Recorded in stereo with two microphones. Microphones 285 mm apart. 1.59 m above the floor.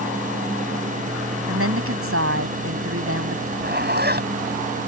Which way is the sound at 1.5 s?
50° right (ahead or behind).